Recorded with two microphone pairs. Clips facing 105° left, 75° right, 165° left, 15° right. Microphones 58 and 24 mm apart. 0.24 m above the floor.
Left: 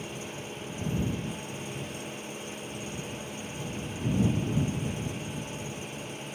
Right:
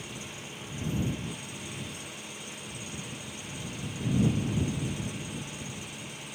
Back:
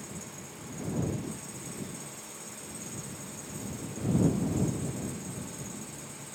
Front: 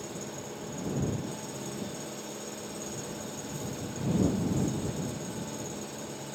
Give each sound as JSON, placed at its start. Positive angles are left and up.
{"t": 0.0, "sound": "an engine running", "azimuth_deg": 45}